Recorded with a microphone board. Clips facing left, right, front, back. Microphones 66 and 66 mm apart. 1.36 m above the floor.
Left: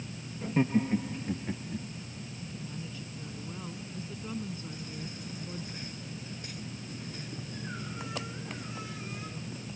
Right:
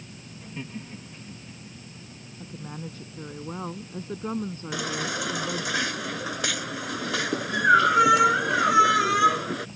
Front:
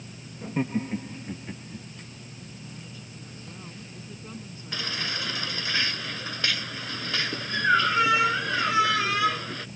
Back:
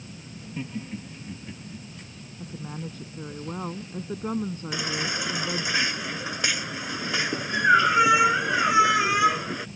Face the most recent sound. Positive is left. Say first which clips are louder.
# right 12 dB, back 1 dB
turn(degrees=-105)